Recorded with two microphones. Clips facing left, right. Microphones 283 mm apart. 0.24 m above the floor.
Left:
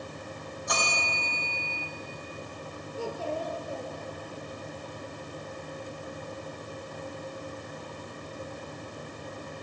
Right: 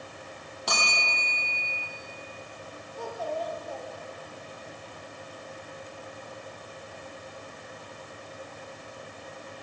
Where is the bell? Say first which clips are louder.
Even; 80° right, 7 m.